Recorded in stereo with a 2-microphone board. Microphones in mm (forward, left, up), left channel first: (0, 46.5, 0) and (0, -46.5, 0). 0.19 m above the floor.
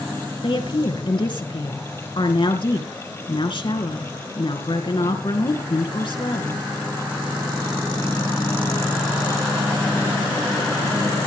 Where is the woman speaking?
60° left (ahead or behind), 2.5 m.